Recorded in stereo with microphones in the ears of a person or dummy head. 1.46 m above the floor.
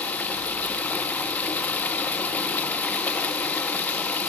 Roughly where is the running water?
Centre.